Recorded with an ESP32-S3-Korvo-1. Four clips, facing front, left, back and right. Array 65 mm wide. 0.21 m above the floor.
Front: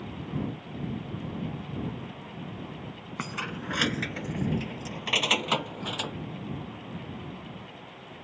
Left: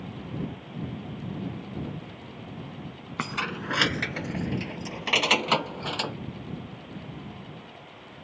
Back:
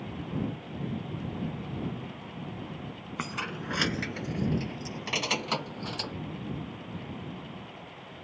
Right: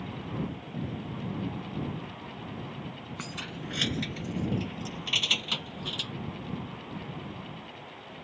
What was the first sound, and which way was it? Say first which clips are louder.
Keys jangling: left 10 dB, even; 90° left.